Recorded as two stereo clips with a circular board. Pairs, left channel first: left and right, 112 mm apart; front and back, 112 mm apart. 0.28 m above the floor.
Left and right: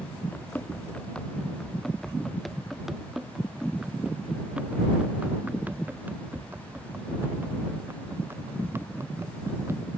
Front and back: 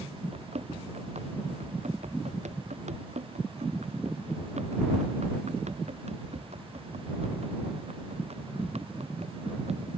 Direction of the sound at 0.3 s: 165° left.